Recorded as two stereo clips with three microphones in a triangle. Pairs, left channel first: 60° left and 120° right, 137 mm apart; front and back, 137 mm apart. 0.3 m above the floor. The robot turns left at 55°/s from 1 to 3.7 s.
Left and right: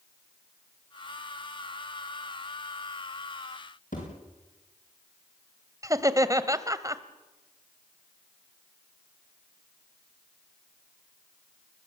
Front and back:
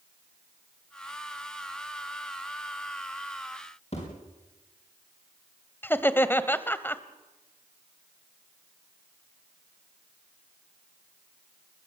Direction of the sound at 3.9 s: 40° left.